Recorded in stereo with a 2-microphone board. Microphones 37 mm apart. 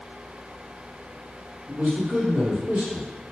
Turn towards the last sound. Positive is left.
turn(degrees=-60)  # may be behind; listen again after turning